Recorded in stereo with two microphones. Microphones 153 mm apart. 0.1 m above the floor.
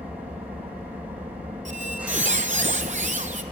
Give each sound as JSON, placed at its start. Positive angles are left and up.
{"t": 0.0, "sound": "an engine running", "side_deg": -10, "distance_m": 2.0}
{"t": 1.6, "sound": "a squeak", "side_deg": -50, "distance_m": 0.5}